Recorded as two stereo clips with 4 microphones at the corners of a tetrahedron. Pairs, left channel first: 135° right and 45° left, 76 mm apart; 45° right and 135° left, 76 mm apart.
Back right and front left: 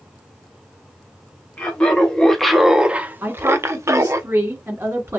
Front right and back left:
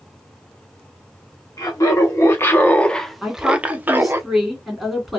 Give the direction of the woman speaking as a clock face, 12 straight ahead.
10 o'clock.